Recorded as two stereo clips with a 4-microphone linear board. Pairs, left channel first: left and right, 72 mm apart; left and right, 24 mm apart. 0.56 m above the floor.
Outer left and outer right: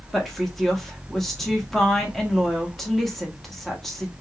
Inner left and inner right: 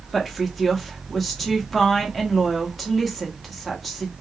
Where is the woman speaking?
Centre (ahead or behind), 1.0 m.